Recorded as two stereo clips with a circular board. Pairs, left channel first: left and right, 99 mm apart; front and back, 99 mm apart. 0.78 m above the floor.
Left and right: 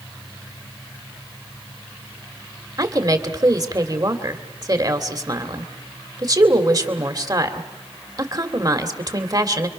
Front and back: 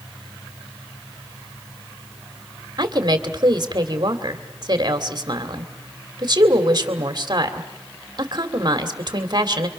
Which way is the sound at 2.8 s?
135° right.